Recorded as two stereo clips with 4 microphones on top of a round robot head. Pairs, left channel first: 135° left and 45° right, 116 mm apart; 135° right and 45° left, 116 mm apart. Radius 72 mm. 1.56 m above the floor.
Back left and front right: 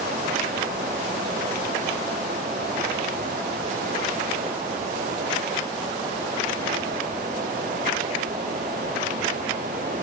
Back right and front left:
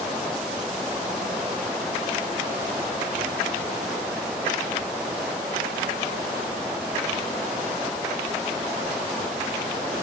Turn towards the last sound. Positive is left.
No sound to turn to.